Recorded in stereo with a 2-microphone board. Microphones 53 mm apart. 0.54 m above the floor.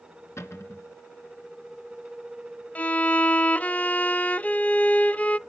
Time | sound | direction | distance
0.4 | a cupboard door | 60° left (ahead or behind) | 2 m
2.8 | a violin | 30° left (ahead or behind) | 0.5 m